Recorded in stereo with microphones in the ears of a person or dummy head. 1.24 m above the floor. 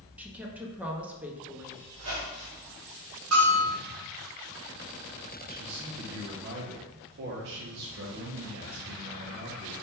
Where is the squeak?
80° right, 1.4 m.